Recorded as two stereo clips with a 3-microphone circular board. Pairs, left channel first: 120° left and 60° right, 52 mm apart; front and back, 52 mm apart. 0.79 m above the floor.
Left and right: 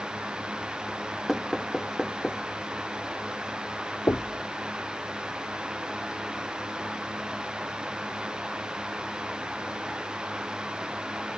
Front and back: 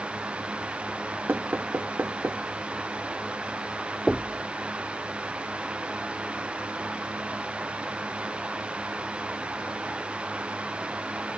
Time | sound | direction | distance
1.3 | knocking | 155° right | ?
4.1 | knocking | 90° left | ?